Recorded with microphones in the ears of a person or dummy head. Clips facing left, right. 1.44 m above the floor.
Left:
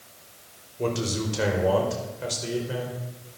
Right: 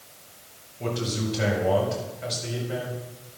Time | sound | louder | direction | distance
0.8 | a man speaking | left 2 dB | 65° left (ahead or behind) | 4.5 m